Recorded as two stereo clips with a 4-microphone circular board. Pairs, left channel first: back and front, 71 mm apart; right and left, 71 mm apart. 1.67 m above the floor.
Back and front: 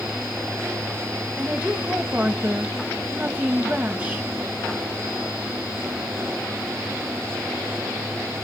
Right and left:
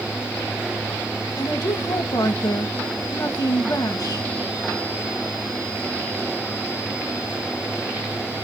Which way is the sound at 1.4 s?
70° right.